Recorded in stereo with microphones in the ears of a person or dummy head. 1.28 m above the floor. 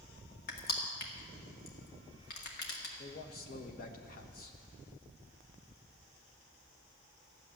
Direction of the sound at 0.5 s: 55° left (ahead or behind).